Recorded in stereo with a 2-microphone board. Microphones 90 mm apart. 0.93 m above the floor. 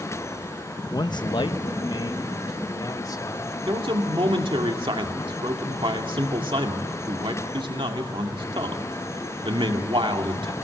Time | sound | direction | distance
0.9 | a man speaking | 40° left (ahead or behind) | 0.7 m
3.7 | a man speaking | 70° right (ahead or behind) | 2.5 m